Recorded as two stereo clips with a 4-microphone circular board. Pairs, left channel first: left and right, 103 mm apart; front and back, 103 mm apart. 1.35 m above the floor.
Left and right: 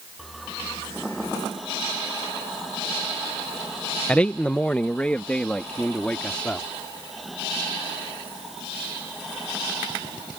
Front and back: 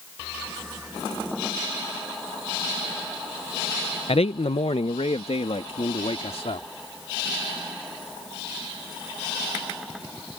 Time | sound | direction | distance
4.1 | a man speaking | 10° left | ?